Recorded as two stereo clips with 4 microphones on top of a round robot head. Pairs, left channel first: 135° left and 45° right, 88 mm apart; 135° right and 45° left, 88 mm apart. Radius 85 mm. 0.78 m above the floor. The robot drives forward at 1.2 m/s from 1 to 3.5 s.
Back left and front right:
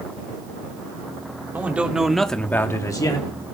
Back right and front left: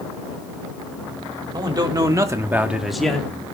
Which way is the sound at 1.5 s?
25° left.